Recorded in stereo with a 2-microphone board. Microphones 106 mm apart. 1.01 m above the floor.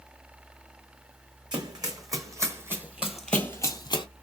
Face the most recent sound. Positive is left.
turn(degrees=45)  # may be behind; listen again after turning